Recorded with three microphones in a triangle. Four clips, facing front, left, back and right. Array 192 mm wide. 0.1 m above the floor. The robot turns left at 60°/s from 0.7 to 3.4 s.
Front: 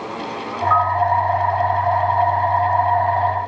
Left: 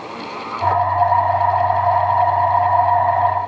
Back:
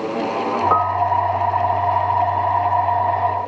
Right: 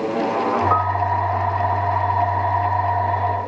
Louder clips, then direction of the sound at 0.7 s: Left 3 dB, front 4 dB; 160° right.